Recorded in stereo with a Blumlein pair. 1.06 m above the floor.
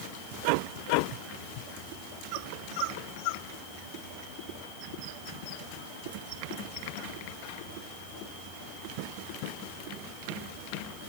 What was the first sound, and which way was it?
Only background noise.